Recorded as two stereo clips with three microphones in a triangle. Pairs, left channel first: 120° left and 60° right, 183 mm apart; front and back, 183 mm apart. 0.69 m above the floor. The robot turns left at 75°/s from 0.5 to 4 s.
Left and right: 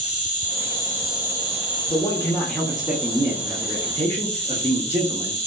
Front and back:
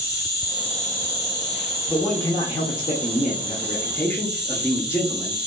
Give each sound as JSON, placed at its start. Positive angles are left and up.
{"t": 0.0, "sound": "an insect", "azimuth_deg": 70, "distance_m": 1.2}
{"t": 1.9, "sound": "a man speaking", "azimuth_deg": 90, "distance_m": 0.6}